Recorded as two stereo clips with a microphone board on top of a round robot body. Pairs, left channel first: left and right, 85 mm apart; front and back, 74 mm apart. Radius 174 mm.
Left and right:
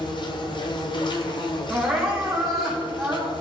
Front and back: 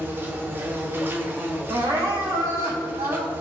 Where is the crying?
Straight behind, 3 m.